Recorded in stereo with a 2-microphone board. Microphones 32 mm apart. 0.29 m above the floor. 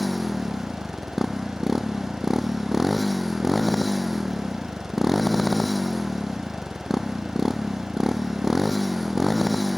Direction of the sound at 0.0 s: 5° right (ahead or behind).